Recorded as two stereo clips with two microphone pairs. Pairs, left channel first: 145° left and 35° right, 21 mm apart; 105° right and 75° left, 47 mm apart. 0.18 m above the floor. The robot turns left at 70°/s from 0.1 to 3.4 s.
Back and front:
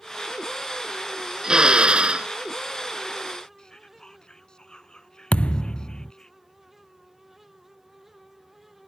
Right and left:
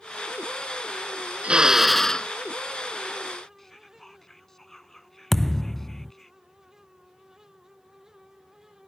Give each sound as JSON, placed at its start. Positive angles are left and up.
{"t": 1.4, "sound": "a drill", "azimuth_deg": 15}
{"t": 3.6, "sound": "whispering", "azimuth_deg": 175}
{"t": 5.3, "sound": "a thud", "azimuth_deg": 170}